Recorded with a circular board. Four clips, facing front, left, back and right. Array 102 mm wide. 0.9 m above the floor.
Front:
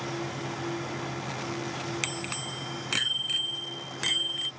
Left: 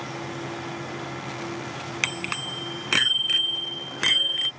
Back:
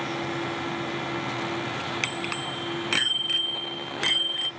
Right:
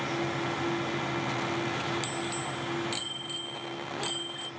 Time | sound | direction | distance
2.0 | a bicycle bell | 105° left | ?